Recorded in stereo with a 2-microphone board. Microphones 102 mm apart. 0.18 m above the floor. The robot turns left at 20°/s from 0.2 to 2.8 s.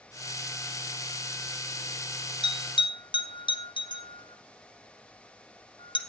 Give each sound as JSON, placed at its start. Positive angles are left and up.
{"t": 2.4, "sound": "a bell", "side_deg": 50, "distance_m": 1.7}